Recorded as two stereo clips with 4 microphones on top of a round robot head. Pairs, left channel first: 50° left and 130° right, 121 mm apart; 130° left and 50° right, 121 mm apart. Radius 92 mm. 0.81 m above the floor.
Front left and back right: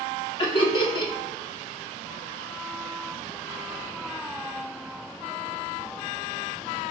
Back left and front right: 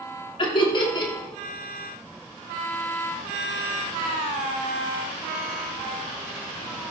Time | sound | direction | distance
0.4 | laughter | 90° left | 2.5 m